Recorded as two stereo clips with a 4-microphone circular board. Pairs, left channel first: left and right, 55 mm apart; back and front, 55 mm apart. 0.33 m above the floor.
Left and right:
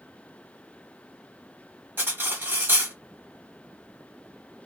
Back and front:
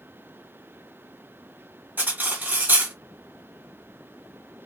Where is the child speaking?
I don't hear a child speaking.